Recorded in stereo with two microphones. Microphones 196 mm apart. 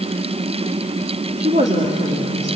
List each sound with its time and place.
1.4 s a woman speaking: 35° right (ahead or behind), 2 m